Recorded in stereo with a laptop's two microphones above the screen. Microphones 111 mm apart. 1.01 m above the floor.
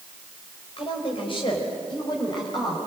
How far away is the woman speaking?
About 4 m.